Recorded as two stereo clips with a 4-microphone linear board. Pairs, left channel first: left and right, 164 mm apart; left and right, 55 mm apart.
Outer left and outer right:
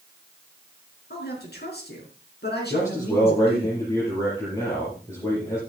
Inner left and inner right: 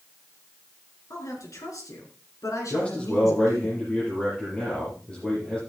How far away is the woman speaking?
About 4.5 m.